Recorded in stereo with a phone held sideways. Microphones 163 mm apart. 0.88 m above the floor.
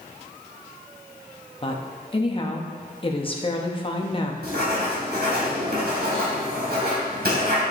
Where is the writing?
75° right (ahead or behind), 3.5 m.